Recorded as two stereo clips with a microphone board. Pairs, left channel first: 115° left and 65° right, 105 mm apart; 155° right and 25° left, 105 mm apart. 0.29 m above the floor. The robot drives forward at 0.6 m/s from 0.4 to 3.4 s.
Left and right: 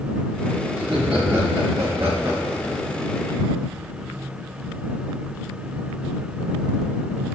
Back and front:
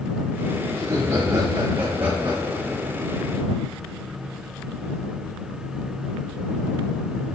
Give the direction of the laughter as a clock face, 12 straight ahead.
12 o'clock.